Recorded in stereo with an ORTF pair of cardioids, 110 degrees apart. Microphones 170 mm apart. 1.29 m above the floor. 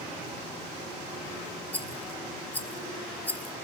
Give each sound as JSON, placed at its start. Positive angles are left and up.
{"t": 1.7, "sound": "a rattle", "azimuth_deg": 10, "distance_m": 0.8}